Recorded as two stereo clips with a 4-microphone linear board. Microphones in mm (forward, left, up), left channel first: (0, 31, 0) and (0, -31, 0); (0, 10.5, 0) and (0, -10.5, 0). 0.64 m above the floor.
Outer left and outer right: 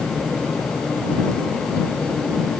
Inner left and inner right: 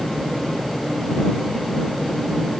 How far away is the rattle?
No rattle in this recording.